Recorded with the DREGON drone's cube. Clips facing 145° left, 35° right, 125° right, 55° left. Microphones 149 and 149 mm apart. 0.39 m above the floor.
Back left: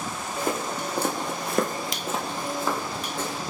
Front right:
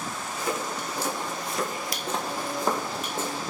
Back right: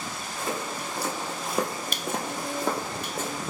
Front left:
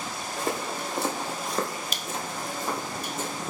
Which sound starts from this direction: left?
Footsteps, at 0.4 s.